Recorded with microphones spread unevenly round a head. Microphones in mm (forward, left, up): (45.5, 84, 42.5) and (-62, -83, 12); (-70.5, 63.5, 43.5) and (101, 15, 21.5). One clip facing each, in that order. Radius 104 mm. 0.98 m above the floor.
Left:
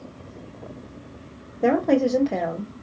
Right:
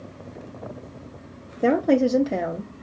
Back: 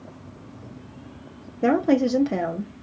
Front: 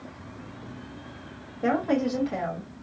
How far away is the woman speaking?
About 0.8 m.